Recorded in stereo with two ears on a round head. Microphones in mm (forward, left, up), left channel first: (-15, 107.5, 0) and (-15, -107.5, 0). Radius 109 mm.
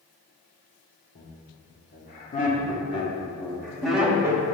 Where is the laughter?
50° left (ahead or behind), 1.8 m; by 4.4 s 15° right (ahead or behind), 1.1 m.